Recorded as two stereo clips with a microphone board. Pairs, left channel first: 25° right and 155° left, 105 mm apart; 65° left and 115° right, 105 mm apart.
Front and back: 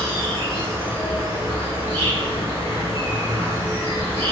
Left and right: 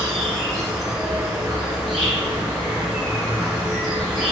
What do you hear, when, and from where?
0.0 s an insect: 10° right, 1.9 m